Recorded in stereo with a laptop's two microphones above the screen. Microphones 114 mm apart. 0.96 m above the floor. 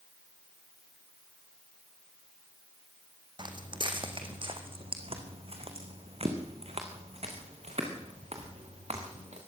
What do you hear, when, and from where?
3.4 s footsteps: 40° right (ahead or behind), 2.5 m; by 9.4 s 70° right (ahead or behind), 5.5 m